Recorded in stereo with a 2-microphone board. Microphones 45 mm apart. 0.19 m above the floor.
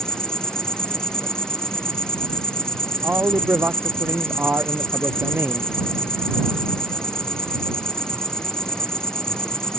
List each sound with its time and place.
0.0 s an insect: 15° left (ahead or behind)
3.0 s a man speaking: 50° right (ahead or behind)